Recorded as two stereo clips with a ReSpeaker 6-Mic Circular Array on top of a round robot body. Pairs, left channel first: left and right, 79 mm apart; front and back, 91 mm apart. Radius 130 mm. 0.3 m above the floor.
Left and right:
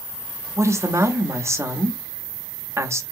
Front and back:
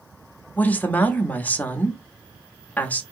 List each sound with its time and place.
0.6 s a woman speaking: 65° right, 1.0 m